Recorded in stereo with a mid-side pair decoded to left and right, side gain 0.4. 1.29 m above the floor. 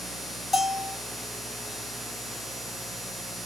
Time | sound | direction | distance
0.5 | a bell | 25° left | 1.3 m